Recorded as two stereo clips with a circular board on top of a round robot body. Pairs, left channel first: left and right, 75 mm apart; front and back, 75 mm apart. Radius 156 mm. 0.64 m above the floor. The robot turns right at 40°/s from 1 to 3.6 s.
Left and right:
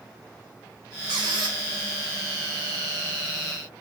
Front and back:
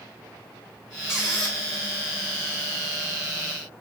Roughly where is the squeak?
Right.